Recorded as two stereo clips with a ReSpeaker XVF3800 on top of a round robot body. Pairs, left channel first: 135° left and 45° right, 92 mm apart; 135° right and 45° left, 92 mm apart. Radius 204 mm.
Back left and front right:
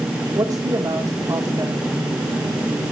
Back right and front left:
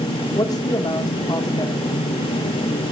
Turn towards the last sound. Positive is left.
turn(degrees=-95)